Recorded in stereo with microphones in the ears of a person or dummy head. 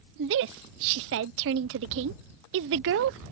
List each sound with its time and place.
0.2 s a woman speaking: 65° right (ahead or behind)